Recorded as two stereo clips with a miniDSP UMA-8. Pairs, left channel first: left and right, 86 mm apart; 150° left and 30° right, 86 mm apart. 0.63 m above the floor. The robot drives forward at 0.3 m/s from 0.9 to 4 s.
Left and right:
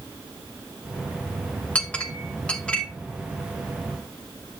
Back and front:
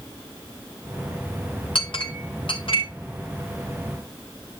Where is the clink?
165° left, 2 m.